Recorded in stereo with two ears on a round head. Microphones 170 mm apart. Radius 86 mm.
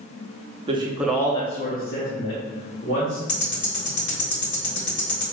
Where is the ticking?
65° left (ahead or behind), 1.5 m.